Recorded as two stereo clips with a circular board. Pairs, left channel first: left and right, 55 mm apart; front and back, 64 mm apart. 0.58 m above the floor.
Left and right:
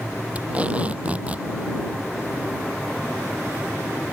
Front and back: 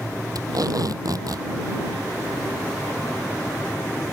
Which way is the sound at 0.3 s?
155° right.